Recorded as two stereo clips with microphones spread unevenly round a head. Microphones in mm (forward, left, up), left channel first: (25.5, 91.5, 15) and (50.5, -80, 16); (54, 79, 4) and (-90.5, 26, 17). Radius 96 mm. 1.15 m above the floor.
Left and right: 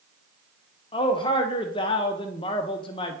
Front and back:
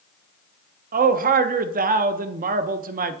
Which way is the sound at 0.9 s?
165° left.